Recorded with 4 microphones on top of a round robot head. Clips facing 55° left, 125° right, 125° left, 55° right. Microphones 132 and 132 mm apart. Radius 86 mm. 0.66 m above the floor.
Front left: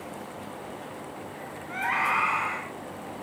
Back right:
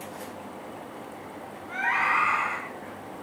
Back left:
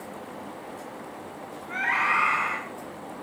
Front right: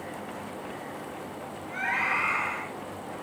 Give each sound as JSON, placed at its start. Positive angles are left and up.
{"t": 1.7, "sound": "a scream", "azimuth_deg": 135, "distance_m": 5.5}